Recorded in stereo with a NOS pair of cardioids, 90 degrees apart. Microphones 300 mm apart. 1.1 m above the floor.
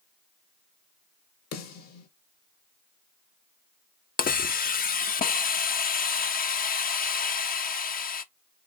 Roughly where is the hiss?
Ahead left.